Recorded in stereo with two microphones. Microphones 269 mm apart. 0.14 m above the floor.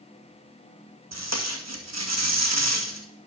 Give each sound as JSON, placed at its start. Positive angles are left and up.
{"t": 1.1, "sound": "tape being pulled", "side_deg": -75, "distance_m": 2.0}